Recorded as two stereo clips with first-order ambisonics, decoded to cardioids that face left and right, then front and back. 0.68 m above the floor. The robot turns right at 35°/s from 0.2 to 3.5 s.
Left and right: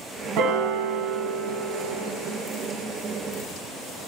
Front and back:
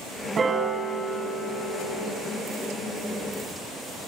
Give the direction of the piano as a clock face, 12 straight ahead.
4 o'clock.